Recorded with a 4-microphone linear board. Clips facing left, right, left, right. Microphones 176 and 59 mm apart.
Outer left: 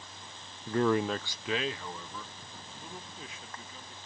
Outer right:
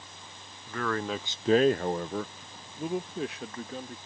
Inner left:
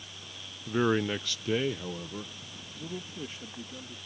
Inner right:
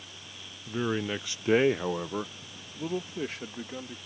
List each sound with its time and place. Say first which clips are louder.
0.7 s a man speaking: outer left 4 dB, inner left 3 dB; 40° left (ahead or behind); by 4.0 s 80° right